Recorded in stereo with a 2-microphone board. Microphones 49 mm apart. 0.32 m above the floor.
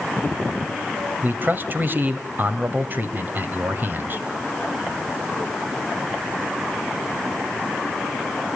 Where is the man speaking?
40° right (ahead or behind), 1.7 m.